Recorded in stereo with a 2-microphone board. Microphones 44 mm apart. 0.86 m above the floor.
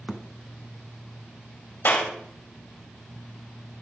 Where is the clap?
60° left (ahead or behind), 3.5 m.